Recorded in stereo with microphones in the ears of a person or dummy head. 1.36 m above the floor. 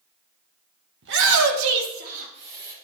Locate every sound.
1.0 s a shout: 60° right (ahead or behind), 1.3 m; by 2.7 s 20° right (ahead or behind), 2.0 m